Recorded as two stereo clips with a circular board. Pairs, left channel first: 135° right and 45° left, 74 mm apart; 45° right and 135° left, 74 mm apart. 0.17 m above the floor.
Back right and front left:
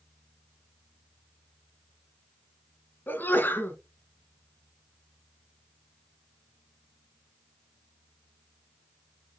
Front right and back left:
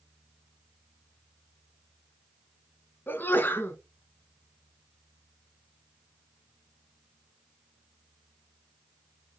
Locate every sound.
3.1 s a sneeze: 90° right, 1.8 m